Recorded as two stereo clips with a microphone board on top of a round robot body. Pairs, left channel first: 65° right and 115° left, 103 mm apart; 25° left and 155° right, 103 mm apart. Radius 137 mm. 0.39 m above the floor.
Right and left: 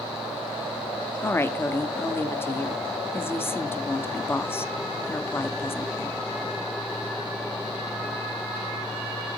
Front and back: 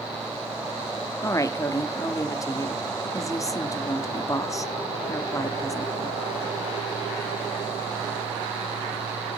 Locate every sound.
1.2 s a woman speaking: 15° right, 1.0 m